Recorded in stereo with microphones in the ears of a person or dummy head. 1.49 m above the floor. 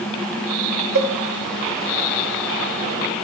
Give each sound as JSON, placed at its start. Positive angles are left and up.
{"t": 0.9, "sound": "a cowbell", "side_deg": -65, "distance_m": 3.0}